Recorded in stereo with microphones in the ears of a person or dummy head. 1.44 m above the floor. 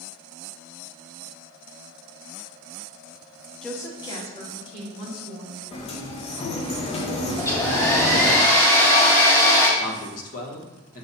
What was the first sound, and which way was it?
A woman speaking, centre (ahead or behind).